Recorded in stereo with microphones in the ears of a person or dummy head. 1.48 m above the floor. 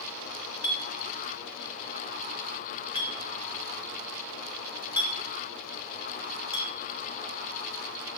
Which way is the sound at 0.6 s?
20° left (ahead or behind).